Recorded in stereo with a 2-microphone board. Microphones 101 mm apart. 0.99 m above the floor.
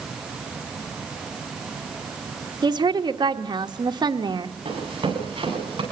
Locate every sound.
2.6 s a woman speaking: 45° right (ahead or behind), 1.1 m
4.7 s running footsteps: 50° right (ahead or behind), 10 m